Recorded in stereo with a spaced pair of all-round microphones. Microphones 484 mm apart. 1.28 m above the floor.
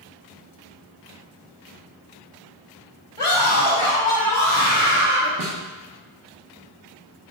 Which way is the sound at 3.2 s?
85° left.